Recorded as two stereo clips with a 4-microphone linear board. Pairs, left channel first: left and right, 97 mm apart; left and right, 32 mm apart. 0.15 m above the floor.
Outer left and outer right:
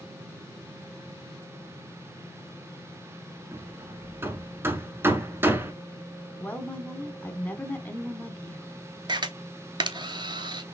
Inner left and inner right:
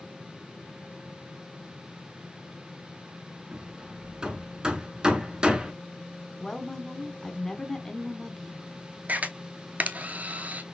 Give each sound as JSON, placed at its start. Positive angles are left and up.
{"t": 3.5, "sound": "hammering", "side_deg": -25, "distance_m": 1.0}
{"t": 6.4, "sound": "a woman speaking", "side_deg": 20, "distance_m": 1.0}
{"t": 9.1, "sound": "a camera shutter", "side_deg": -50, "distance_m": 0.7}